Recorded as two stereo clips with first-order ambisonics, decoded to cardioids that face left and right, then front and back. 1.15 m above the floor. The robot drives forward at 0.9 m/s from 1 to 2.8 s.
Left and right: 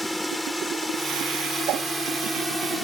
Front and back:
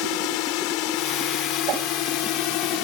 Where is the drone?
5° left.